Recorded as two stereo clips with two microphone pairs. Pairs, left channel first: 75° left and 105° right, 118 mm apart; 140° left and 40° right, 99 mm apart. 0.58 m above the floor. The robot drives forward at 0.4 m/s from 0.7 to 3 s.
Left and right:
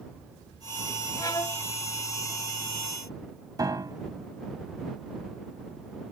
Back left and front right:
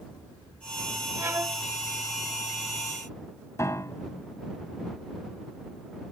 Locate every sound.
1.2 s a violin: 20° left; by 1.6 s 25° left
3.6 s a piano: 160° right